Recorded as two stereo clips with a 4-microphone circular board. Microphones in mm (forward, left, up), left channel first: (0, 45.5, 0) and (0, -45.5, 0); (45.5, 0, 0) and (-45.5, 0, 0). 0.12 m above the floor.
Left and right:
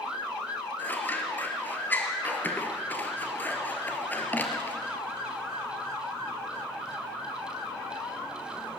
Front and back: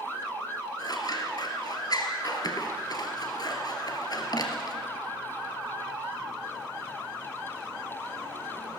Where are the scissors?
25° left, 2.5 m.